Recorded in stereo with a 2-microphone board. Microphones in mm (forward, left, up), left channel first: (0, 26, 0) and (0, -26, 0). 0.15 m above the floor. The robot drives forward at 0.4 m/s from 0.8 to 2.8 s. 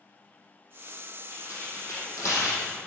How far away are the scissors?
I don't hear scissors.